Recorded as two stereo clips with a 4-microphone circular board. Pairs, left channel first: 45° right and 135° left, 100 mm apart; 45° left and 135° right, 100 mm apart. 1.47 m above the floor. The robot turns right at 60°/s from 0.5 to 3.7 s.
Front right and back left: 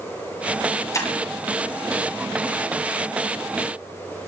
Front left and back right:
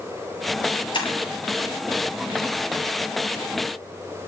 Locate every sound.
0.9 s breaking glass: 10° left, 7.5 m; by 1.1 s 20° left, 7.5 m